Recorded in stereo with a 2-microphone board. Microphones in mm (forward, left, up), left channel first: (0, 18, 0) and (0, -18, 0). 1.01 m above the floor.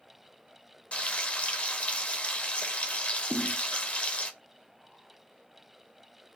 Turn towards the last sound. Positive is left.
turn(degrees=25)  # may be behind; listen again after turning